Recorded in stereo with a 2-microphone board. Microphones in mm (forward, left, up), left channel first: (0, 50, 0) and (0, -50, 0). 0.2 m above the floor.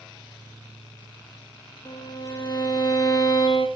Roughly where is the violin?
Left.